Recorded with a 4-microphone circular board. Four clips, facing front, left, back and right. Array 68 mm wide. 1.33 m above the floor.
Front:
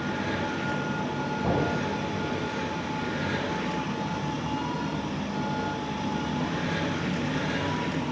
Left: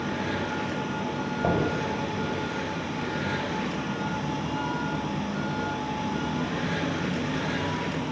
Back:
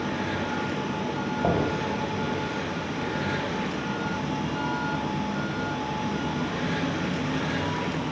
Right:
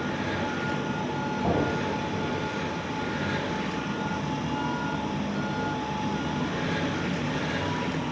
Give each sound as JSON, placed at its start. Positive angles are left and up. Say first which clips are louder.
{"t": 1.4, "sound": "knocking", "louder": "left 1 dB, back 2 dB", "azimuth_deg": 135, "distance_m": 5.5}